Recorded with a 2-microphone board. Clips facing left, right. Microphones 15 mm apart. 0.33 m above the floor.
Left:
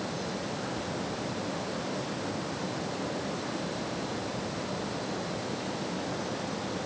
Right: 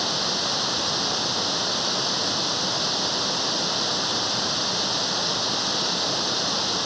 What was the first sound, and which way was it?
Running water, 70° right (ahead or behind).